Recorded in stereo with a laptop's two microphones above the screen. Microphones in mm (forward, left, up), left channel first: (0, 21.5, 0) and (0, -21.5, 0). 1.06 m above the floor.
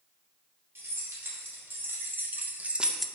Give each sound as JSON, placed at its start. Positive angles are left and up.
{"t": 0.8, "sound": "keys jangling", "side_deg": -70, "distance_m": 2.5}